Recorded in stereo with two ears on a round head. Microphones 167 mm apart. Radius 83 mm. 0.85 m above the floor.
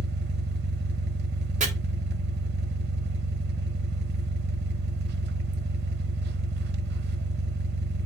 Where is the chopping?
40° right (ahead or behind), 2.5 m.